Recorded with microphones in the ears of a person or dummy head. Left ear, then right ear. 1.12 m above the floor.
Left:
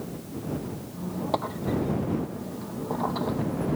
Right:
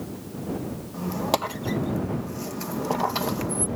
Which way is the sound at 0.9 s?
70° right (ahead or behind).